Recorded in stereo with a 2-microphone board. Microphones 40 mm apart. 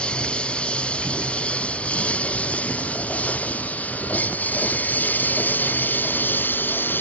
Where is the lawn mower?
30° left (ahead or behind); by 7.0 s 55° left (ahead or behind).